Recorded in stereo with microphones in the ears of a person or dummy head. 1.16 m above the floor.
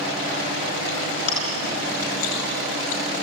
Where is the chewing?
80° left, 7.5 m.